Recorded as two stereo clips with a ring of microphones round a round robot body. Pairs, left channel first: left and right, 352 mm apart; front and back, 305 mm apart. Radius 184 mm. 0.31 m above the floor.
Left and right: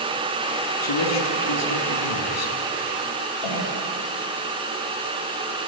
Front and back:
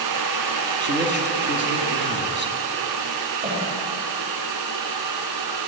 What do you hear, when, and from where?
0.8 s a man speaking: 130° left, 3.5 m
3.4 s a cough: 120° left, 9 m